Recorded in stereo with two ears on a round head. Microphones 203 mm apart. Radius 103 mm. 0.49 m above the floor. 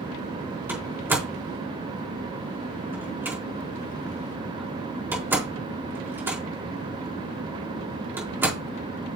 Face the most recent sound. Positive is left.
turn(degrees=-10)  # may be behind; listen again after turning